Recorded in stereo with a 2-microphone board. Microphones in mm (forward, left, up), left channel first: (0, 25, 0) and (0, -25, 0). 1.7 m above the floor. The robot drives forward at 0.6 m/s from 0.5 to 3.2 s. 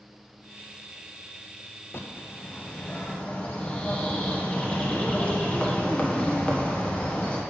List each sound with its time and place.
1.9 s a bird: 50° left (ahead or behind), 0.6 m; by 7.4 s 20° left (ahead or behind), 1.2 m